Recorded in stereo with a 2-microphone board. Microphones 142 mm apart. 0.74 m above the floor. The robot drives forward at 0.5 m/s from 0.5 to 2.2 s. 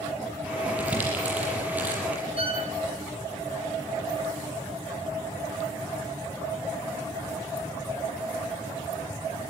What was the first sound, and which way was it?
Crumpling, 10° right (ahead or behind).